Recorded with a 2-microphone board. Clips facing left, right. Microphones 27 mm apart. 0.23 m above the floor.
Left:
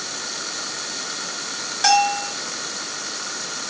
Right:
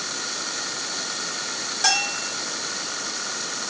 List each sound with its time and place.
1.8 s a bell: 10° left (ahead or behind), 4 m